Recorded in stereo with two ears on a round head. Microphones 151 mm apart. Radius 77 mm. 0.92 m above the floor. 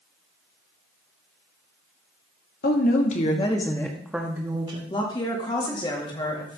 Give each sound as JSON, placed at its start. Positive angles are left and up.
{"t": 2.6, "sound": "a woman speaking", "side_deg": 50, "distance_m": 1.8}
{"t": 4.9, "sound": "a woman speaking", "side_deg": 25, "distance_m": 1.8}